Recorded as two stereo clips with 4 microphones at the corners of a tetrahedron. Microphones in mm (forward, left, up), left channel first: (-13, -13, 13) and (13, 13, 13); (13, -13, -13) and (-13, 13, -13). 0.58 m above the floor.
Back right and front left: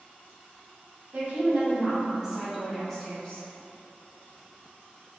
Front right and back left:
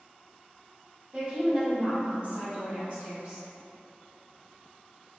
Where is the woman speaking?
75° left, 1.5 m; by 3.5 s 175° left, 1.2 m.